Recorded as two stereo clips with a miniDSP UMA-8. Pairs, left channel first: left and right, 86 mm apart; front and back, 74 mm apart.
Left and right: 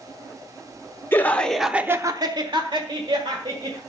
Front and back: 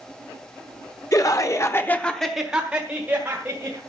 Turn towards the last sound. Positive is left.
turn(degrees=-115)